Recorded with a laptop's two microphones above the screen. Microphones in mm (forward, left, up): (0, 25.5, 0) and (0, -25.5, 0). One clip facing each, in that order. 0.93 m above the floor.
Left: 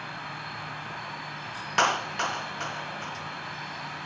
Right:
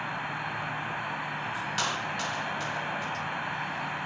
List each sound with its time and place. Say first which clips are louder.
0.0 s an insect: right 4 dB; 25° right (ahead or behind), 0.8 m
1.8 s a clap: left 9 dB; 45° left (ahead or behind), 0.5 m